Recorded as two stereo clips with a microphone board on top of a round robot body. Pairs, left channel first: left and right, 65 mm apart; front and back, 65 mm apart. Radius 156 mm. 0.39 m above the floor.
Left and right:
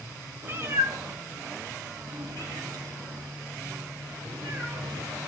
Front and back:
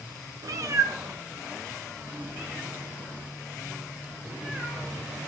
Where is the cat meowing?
150° right, 0.9 m; by 5.2 s 115° right, 5.5 m.